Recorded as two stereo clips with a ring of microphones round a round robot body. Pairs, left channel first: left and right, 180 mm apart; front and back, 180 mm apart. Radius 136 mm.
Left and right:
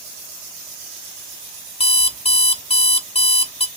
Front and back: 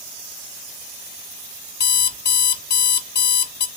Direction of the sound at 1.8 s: 30° left.